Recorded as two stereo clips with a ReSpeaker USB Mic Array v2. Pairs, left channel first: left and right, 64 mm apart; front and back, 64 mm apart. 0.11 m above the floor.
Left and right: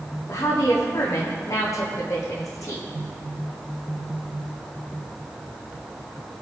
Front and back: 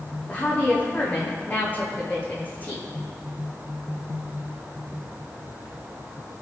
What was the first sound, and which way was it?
A woman speaking, 65° left.